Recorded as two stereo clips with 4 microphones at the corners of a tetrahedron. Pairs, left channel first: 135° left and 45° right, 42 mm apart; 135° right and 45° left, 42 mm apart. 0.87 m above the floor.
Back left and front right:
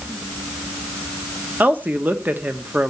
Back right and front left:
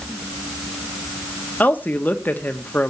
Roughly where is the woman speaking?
Right.